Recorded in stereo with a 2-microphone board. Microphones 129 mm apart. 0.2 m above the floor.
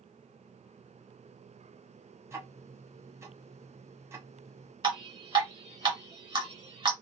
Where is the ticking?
20° right (ahead or behind), 1.4 m.